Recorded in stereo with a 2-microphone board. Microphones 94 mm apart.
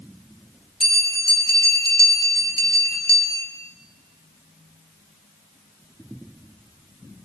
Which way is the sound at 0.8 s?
80° left.